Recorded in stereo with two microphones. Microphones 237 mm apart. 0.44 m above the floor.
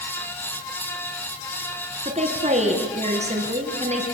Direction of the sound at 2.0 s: 30° right (ahead or behind).